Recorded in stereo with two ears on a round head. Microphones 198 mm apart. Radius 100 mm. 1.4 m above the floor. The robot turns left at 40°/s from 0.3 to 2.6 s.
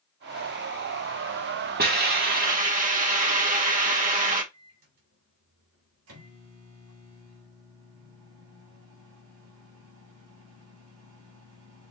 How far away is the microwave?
About 3 m.